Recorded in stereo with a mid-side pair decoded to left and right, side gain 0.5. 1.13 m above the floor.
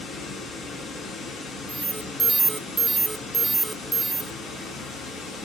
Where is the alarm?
20° right, 0.7 m.